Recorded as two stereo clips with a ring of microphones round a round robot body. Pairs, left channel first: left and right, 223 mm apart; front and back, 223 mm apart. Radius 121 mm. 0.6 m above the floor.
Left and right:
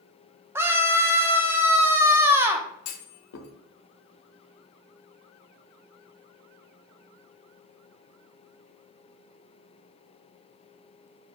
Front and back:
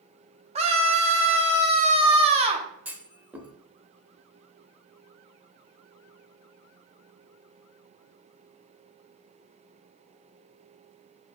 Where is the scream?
155° right, 0.7 m.